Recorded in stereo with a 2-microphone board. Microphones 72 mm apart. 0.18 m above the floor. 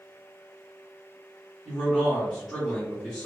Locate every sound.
1.6 s a man speaking: centre (ahead or behind), 1.6 m